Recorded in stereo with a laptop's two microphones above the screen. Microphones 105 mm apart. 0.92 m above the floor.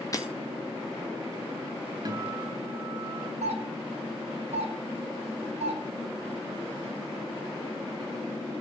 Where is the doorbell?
80° right, 7 m.